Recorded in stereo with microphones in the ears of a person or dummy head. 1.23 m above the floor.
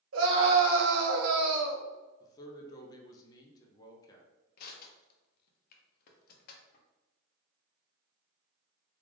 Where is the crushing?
50° left (ahead or behind), 0.7 m.